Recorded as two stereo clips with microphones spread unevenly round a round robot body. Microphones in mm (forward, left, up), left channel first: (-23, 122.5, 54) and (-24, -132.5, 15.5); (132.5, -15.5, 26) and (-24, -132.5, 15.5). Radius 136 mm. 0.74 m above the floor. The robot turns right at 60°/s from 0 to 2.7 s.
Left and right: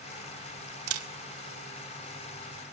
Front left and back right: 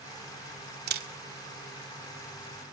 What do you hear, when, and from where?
0.9 s a camera shutter: 115° right, 1.7 m; by 1.1 s 100° right, 1.7 m